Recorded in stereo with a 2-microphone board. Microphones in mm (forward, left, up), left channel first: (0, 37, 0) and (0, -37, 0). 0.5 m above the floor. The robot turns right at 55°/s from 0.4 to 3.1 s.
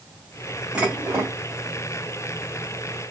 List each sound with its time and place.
0.8 s dishes clattering: 165° right, 2.5 m; by 1.4 s 130° right, 2.5 m